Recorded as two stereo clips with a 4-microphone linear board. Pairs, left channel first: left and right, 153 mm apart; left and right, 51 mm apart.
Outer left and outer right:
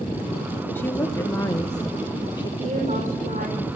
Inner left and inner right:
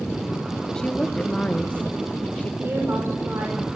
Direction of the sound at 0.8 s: 15° left (ahead or behind).